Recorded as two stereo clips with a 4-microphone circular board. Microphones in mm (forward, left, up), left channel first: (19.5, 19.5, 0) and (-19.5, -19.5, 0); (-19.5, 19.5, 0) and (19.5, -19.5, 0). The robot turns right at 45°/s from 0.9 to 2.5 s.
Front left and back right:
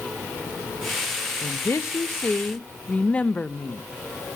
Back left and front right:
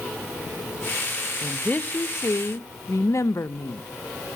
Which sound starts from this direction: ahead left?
A woman speaking, at 1.4 s.